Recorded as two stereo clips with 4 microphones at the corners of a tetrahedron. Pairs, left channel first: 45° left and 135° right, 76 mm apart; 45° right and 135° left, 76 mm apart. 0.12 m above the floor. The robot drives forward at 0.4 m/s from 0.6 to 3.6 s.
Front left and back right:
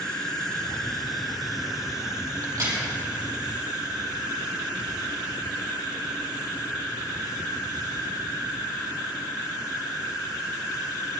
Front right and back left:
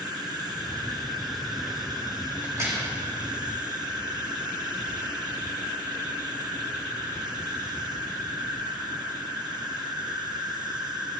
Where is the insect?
125° left, 1.3 m; by 11.2 s 150° left, 2 m.